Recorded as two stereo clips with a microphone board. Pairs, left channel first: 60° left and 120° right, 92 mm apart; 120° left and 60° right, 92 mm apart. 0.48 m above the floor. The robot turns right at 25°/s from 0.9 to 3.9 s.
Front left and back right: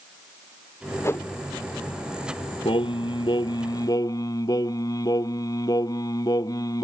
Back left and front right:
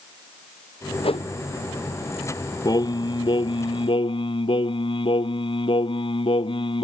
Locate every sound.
1.0 s a whoosh: 120° left; by 1.3 s 125° left
2.6 s singing: 75° left; by 6.9 s 105° left